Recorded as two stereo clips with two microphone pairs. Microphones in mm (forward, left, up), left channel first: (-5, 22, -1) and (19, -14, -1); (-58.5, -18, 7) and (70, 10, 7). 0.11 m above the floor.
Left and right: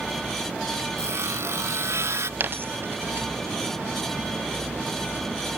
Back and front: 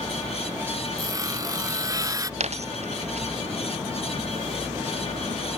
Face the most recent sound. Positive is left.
turn(degrees=-20)